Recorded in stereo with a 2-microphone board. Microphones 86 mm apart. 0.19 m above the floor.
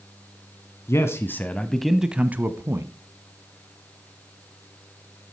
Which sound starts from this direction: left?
A man speaking, at 0.9 s.